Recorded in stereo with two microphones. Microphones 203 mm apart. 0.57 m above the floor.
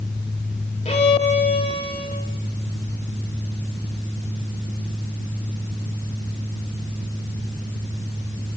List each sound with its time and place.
0.8 s a violin: 30° left (ahead or behind), 2.5 m